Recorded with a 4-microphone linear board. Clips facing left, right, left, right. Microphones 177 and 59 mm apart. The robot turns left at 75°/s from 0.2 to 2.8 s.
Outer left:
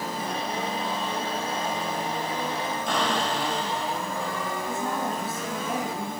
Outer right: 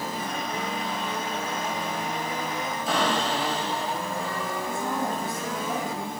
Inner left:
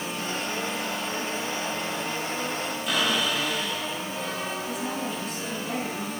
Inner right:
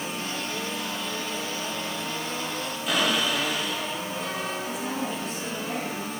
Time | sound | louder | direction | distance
2.9 | a cupboard door | outer right 2 dB, inner right 1 dB | 5° right (ahead or behind) | 6.5 m
4.7 | a woman speaking | outer right 1 dB, even | 5° left (ahead or behind) | 8 m